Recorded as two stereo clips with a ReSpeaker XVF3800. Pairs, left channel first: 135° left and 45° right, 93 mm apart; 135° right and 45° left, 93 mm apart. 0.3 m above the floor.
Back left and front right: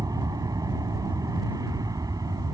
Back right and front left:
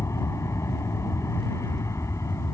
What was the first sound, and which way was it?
An aircraft, 85° right.